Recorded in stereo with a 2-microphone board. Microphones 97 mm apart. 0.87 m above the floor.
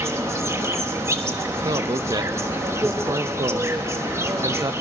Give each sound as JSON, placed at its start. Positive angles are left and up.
{"t": 0.0, "sound": "an insect", "side_deg": -30, "distance_m": 1.2}
{"t": 1.6, "sound": "a man speaking", "side_deg": -45, "distance_m": 0.6}